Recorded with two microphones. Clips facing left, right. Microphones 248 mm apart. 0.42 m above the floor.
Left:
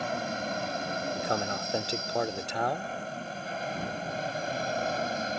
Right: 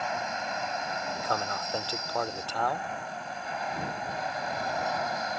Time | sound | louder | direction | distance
0.0 | an aircraft | left 2 dB | 35° left (ahead or behind) | ?
1.1 | a man speaking | left 1 dB | 20° left (ahead or behind) | ?